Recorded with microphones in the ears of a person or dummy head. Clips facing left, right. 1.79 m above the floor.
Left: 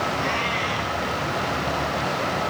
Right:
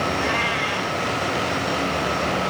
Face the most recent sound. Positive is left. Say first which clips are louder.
# right 2 dB
turn(degrees=-25)  # may be behind; listen again after turning